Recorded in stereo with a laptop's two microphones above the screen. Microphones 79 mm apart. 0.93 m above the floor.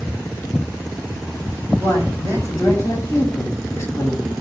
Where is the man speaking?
30° left (ahead or behind), 7 m.